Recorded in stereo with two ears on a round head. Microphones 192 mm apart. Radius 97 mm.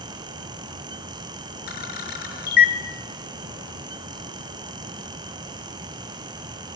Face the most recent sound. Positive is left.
turn(degrees=45)  # may be behind; listen again after turning